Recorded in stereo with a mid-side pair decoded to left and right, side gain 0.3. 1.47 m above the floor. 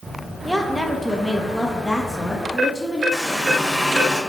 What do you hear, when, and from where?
0.5 s a woman speaking: 15° right, 1.8 m; by 3.0 s 15° left, 3 m
3.1 s a running tap: 5° right, 4 m